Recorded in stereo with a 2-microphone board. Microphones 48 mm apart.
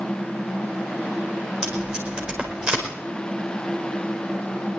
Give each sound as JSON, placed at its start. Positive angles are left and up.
{"t": 1.6, "sound": "tape being pulled", "side_deg": -20, "distance_m": 4.5}